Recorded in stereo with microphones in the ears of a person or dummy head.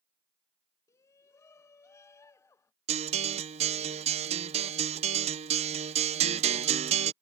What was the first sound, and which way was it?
A shout, 15° left (ahead or behind).